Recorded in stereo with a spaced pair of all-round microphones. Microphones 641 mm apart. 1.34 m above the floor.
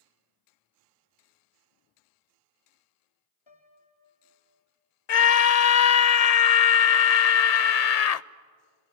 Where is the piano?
40° left (ahead or behind), 2.5 m.